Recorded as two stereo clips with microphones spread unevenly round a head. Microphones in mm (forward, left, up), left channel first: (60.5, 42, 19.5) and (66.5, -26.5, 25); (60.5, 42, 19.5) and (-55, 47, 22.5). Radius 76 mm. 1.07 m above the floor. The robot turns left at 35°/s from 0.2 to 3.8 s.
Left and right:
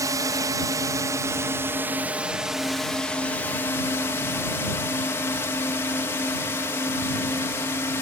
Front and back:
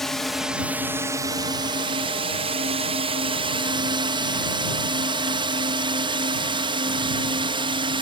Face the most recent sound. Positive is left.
turn(degrees=150)